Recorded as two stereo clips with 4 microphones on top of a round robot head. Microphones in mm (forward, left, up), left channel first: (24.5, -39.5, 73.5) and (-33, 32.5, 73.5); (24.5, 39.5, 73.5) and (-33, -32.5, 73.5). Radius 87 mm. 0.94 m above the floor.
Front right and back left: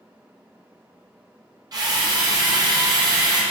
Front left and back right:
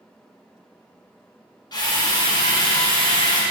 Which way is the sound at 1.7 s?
90° left.